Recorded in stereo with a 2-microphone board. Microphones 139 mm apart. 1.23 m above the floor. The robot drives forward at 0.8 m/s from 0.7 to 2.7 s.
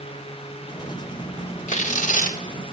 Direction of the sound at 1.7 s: 60° left (ahead or behind).